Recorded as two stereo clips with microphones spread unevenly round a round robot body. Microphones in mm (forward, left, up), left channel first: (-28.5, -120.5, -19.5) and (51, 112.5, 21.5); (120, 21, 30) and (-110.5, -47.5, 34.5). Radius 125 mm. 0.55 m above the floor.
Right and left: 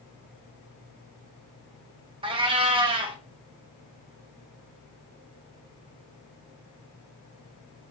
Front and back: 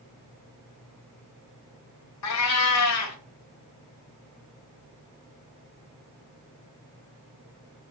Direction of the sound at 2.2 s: Straight ahead.